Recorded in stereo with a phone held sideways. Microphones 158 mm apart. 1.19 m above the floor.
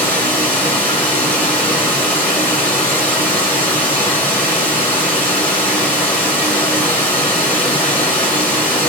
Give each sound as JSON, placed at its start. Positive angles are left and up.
{"t": 0.0, "sound": "running water", "side_deg": 10, "distance_m": 1.4}